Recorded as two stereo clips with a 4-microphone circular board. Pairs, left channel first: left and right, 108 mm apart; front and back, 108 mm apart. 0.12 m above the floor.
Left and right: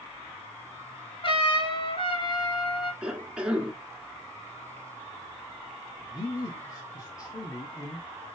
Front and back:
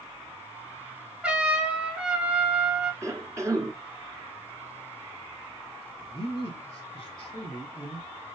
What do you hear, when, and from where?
1.2 s a trumpet: 100° left, 1.2 m
3.0 s a cough: 160° right, 1.3 m
6.0 s a man speaking: 40° left, 2.5 m